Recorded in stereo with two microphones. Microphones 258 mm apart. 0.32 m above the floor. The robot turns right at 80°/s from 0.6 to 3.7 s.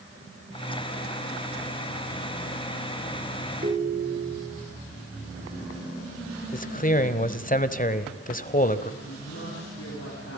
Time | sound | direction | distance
3.6 | a ringtone | 35° right (ahead or behind) | 2 m
6.5 | a man speaking | 30° left (ahead or behind) | 1.3 m
9.0 | a woman speaking | 60° left (ahead or behind) | 7 m